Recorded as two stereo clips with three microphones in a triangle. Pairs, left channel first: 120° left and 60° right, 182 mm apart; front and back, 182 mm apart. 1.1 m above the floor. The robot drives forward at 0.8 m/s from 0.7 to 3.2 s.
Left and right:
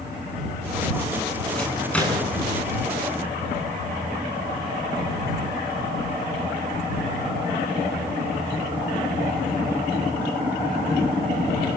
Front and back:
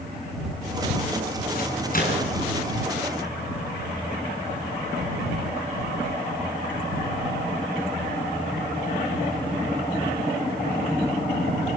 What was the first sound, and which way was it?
A microwave, 35° left.